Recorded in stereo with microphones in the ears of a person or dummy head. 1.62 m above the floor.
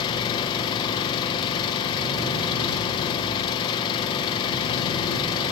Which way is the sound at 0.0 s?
25° left (ahead or behind).